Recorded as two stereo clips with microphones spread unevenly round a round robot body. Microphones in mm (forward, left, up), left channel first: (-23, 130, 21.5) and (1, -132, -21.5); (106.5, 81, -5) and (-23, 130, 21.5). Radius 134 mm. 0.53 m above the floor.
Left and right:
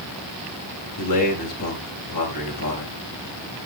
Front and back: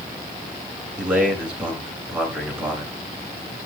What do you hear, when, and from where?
1.0 s a man speaking: 75° left, 7.5 m